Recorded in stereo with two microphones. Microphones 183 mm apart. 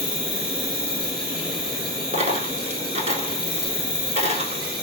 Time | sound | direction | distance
0.0 | an insect | 25° left (ahead or behind) | 1.5 m
2.1 | a dropped coin | 40° right (ahead or behind) | 0.8 m